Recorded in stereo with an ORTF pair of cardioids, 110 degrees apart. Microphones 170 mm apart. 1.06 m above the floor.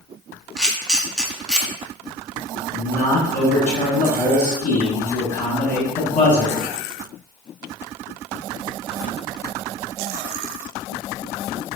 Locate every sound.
0.6 s a camera shutter: 5° left, 0.7 m
2.7 s a man speaking: 50° left, 1.5 m